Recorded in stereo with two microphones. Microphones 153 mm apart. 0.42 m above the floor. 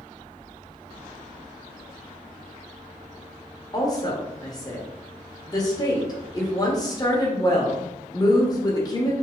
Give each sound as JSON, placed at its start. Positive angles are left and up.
{"t": 3.7, "sound": "a woman speaking", "side_deg": 25, "distance_m": 1.0}